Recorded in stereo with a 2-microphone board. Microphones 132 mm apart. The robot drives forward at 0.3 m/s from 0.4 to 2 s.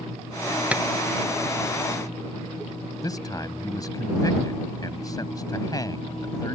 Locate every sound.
0.7 s tapping: 10° right (ahead or behind)
3.0 s a man speaking: 30° left (ahead or behind)